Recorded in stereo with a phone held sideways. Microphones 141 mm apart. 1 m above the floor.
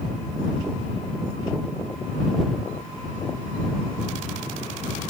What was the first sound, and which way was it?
Only background noise.